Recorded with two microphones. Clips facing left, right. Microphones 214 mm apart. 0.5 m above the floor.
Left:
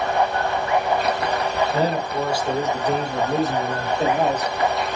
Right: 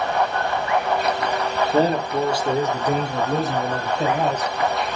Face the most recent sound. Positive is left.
turn(degrees=10)  # may be behind; listen again after turning